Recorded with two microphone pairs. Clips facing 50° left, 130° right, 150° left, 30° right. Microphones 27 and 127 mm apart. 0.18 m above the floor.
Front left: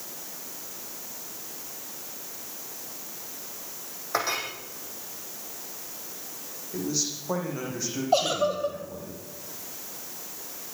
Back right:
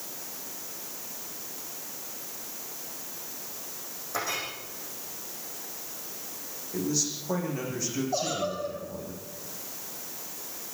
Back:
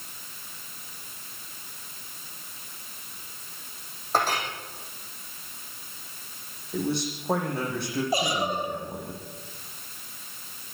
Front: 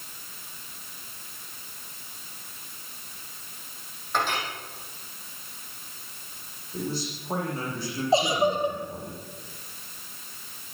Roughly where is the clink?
Left.